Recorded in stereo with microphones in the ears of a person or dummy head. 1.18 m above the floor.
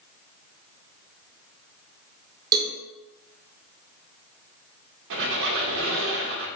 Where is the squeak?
70° right (ahead or behind), 0.9 m.